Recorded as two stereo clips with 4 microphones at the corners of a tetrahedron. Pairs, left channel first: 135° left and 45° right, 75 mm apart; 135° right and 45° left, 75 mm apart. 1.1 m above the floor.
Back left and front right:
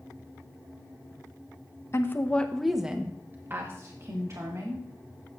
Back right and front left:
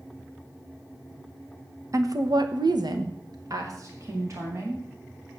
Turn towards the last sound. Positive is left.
turn(degrees=-5)